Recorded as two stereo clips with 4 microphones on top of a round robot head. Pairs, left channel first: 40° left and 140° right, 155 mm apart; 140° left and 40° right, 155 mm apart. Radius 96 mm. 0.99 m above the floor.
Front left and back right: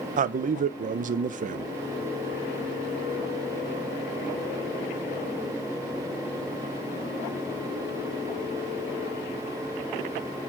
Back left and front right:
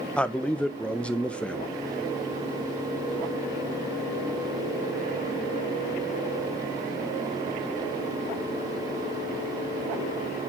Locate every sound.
0.2 s a man speaking: 140° right, 0.6 m